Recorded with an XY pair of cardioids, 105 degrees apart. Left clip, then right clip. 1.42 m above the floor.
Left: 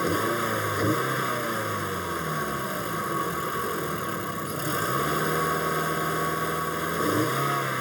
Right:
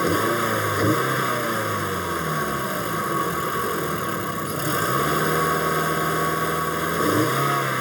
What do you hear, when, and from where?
0.0 s a vehicle: 35° right